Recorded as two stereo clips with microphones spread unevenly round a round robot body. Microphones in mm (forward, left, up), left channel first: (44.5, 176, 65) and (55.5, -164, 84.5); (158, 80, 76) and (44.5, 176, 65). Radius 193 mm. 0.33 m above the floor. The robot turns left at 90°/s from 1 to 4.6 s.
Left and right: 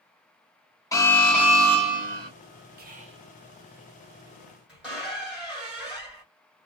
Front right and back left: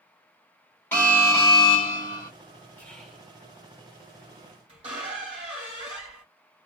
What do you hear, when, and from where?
0.9 s an alarm: 35° left, 2.0 m; by 2.3 s 85° right, 2.0 m
2.8 s whispering: 115° right, 0.8 m; by 3.3 s 160° right, 0.8 m
4.7 s a squeak: 175° right, 1.6 m